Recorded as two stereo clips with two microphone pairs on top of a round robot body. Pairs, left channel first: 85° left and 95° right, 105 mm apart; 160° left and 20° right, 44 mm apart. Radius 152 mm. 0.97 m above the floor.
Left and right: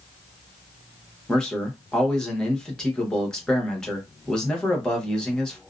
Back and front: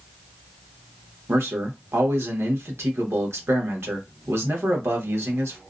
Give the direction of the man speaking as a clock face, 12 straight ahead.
12 o'clock.